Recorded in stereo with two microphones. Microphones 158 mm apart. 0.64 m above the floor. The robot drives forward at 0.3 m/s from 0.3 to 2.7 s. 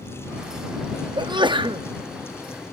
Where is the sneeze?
30° right (ahead or behind), 0.6 m.